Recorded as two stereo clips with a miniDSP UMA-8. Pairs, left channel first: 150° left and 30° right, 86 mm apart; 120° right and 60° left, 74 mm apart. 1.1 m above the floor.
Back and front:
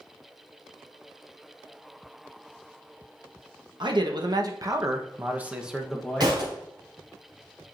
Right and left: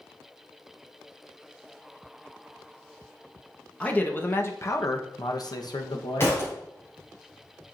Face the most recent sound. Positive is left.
turn(degrees=-60)